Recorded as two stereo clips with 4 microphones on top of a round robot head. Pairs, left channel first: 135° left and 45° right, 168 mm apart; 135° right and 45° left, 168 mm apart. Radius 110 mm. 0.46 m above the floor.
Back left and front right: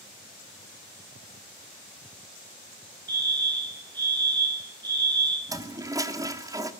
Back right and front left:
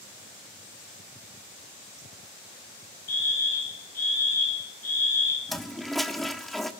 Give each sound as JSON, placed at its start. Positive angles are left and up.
{"t": 3.1, "sound": "a fire alarm", "azimuth_deg": -110, "distance_m": 4.5}
{"t": 5.5, "sound": "a toilet flushing", "azimuth_deg": -45, "distance_m": 1.3}